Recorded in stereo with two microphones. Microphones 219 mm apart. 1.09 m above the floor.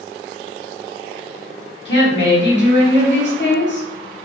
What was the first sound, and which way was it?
A woman speaking, 50° left (ahead or behind).